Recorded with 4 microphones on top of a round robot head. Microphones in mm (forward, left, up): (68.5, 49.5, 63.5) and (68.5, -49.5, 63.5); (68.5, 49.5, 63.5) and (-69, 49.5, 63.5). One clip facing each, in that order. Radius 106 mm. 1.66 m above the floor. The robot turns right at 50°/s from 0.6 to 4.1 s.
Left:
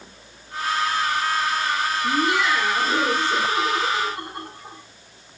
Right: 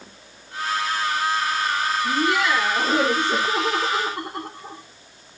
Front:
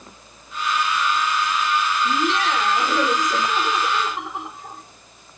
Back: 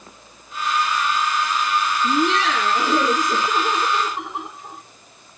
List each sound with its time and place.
2.0 s laughter: 165° left, 2 m; by 4.8 s 90° right, 2 m